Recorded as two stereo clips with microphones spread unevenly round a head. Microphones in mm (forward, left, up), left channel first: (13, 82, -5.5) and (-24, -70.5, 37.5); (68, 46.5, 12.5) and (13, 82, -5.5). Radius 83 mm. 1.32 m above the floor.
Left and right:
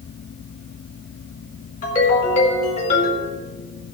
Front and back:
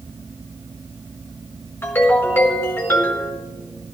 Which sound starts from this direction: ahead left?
A ringtone, at 1.8 s.